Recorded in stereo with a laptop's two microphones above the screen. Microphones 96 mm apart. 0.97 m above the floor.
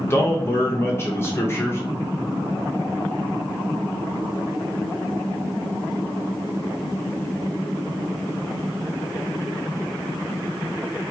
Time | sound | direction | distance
0.1 | a man speaking | 25° left (ahead or behind) | 0.8 m